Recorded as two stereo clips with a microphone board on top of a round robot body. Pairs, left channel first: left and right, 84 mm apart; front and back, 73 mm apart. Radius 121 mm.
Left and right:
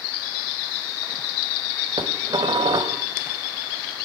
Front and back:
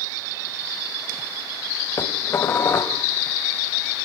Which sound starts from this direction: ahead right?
Dishes clattering, at 2.0 s.